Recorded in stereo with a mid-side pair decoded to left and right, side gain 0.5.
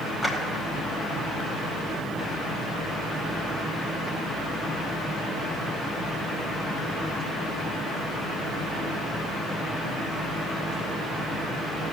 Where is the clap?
5° right, 7.5 m.